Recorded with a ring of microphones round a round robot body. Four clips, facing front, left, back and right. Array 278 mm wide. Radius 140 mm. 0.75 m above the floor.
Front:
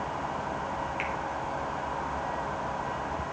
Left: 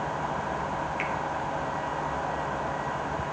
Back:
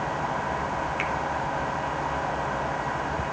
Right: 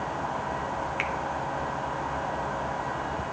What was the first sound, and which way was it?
A finger snap, 120° right.